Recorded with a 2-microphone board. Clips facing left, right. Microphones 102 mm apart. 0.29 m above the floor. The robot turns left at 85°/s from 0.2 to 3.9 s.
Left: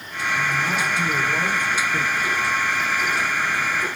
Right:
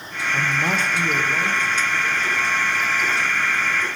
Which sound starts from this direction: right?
A man speaking, at 0.3 s.